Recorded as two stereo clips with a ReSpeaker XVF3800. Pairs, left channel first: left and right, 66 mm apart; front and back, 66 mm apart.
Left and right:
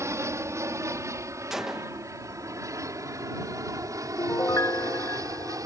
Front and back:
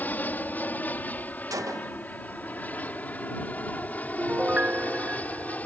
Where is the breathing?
No breathing in this recording.